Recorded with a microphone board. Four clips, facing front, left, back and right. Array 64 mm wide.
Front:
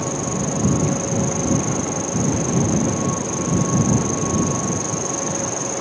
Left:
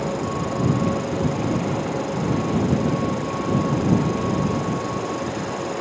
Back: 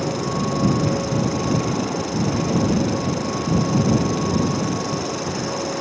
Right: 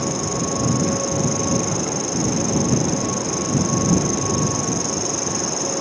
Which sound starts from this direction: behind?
An insect, at 0.0 s.